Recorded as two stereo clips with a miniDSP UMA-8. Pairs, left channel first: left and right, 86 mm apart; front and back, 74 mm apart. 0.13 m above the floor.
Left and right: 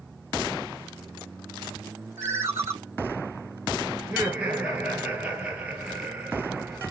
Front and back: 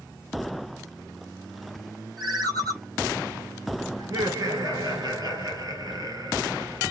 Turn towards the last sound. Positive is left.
turn(degrees=-165)